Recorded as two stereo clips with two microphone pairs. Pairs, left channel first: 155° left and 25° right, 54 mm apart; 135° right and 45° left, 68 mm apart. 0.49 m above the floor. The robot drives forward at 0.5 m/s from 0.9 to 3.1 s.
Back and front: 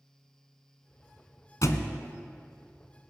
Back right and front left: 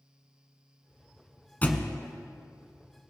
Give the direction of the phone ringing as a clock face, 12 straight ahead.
I don't hear a phone ringing.